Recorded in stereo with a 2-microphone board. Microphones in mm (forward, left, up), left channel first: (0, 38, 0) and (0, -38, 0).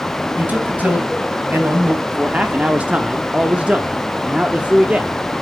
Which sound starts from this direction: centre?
A man speaking, at 2.1 s.